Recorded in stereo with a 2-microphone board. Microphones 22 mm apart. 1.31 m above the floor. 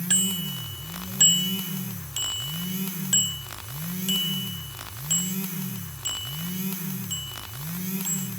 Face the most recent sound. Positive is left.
turn(degrees=-25)  # may be behind; listen again after turning